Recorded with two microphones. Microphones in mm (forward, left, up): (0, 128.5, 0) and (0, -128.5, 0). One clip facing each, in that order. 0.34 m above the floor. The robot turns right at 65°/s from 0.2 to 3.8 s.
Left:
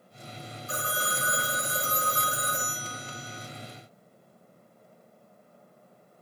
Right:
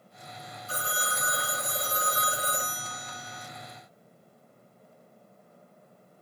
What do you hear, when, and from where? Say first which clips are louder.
0.7 s a phone ringing: left 2 dB; 105° left, 1.1 m; by 3.5 s 75° right, 1.1 m